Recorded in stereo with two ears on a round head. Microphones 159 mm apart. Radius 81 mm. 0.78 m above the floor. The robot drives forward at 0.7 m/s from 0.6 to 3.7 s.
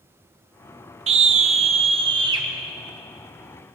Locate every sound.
1.1 s a scream: 35° right (ahead or behind), 0.7 m; by 2.5 s 25° right (ahead or behind), 1.0 m